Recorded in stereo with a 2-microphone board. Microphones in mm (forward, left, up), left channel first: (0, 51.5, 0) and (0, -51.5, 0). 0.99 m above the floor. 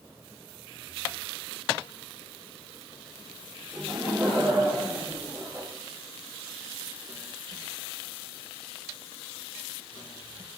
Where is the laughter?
25° right (ahead or behind), 1.6 m.